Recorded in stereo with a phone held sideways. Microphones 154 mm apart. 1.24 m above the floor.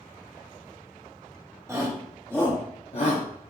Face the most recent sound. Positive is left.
turn(degrees=55)  # may be behind; listen again after turning